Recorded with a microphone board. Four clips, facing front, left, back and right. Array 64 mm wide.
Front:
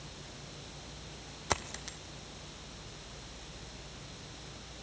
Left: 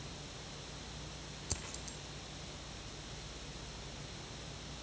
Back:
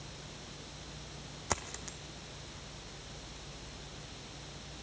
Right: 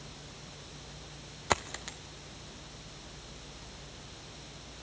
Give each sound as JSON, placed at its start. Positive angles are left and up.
{"t": 1.5, "sound": "a dropped coin", "azimuth_deg": -80, "distance_m": 0.6}